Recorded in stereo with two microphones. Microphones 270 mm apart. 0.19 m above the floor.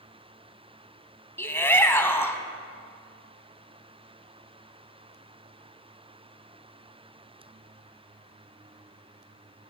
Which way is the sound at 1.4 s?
10° left (ahead or behind).